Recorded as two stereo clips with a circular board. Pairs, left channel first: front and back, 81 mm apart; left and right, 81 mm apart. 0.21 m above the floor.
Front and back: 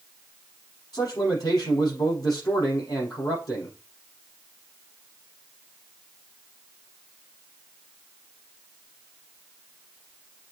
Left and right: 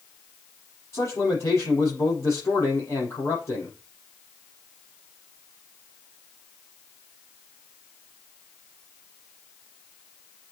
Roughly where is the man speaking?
Ahead left.